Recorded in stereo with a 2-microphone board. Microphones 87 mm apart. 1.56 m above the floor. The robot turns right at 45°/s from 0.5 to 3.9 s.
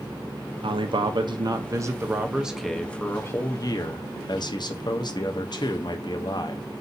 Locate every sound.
0.6 s a man speaking: 90° right, 0.7 m; by 6.7 s 60° left, 0.7 m